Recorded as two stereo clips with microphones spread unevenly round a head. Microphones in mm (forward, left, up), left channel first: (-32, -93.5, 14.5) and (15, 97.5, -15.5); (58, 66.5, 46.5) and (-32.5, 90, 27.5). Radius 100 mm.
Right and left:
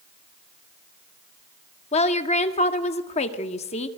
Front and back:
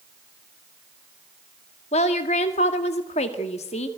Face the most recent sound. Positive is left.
turn(degrees=-40)